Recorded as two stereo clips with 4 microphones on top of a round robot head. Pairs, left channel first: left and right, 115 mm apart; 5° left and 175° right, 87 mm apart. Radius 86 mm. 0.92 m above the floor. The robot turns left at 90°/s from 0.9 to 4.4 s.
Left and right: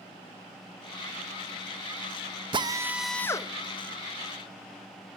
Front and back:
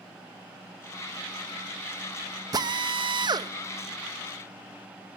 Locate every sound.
2.5 s a drill: 135° right, 1.0 m; by 3.5 s 140° left, 1.0 m